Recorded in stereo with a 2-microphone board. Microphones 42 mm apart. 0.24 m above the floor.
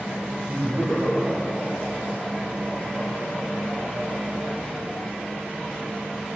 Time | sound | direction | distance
0.5 | laughter | 15° right (ahead or behind) | 6.5 m